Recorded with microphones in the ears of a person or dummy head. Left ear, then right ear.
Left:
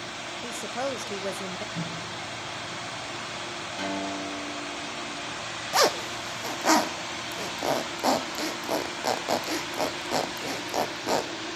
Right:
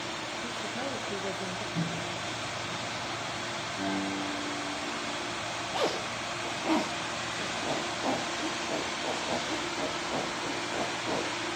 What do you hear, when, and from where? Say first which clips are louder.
0.4 s a woman speaking: left 3 dB; 45° left (ahead or behind), 1.0 m
1.8 s a microwave: even; 10° right (ahead or behind), 1.1 m
3.8 s a guitar: left 2 dB; 40° left (ahead or behind), 4 m
5.7 s a zipper: left 8 dB; 60° left (ahead or behind), 0.8 m